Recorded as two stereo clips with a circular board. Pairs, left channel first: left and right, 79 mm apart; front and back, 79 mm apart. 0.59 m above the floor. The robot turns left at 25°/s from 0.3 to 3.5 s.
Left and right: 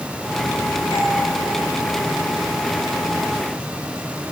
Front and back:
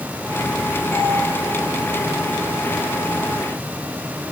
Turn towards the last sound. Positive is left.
turn(degrees=0)